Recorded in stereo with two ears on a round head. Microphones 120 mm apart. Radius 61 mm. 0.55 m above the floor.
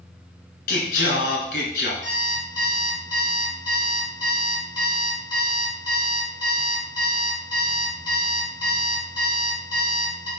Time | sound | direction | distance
0.7 | singing | 70° left (ahead or behind) | 1.8 m
2.0 | an alarm clock | 30° left (ahead or behind) | 3.5 m